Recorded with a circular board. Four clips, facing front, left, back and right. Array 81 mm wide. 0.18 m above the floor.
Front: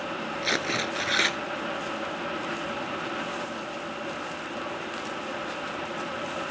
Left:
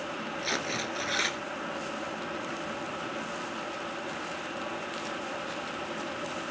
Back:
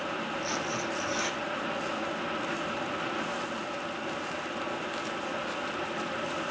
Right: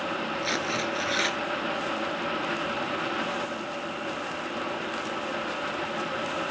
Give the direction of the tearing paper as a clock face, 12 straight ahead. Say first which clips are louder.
Right 2 dB, front 3 dB; 12 o'clock.